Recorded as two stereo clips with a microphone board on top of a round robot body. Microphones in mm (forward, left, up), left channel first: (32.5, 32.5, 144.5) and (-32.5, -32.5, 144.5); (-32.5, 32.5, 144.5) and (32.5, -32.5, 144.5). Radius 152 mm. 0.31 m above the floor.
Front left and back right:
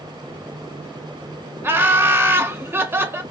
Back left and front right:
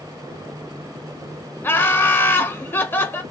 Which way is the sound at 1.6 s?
Straight behind.